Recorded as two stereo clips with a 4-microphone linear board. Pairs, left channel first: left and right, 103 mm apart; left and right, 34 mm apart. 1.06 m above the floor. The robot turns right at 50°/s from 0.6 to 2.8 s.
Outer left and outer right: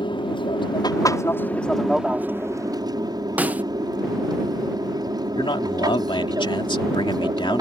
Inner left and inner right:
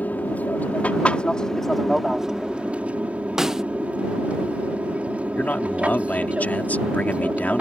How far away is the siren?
I don't hear a siren.